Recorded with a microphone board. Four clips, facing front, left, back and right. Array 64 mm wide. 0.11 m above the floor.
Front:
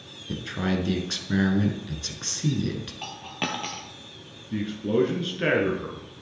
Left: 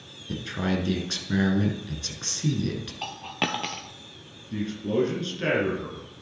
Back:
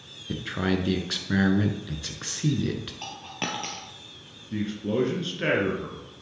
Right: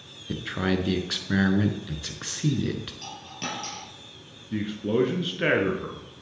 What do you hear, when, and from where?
0.3 s a man speaking: 120° right, 1.1 m
3.0 s a dropped coin: 85° left, 1.2 m
4.5 s a man speaking: 80° right, 1.7 m